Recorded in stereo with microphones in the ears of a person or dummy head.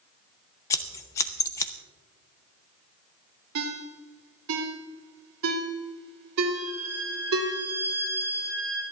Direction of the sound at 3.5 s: 75° right (ahead or behind).